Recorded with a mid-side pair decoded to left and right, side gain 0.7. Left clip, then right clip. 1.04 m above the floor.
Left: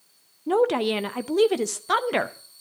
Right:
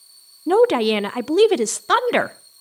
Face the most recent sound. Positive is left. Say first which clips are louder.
# right 6 dB
turn(degrees=-25)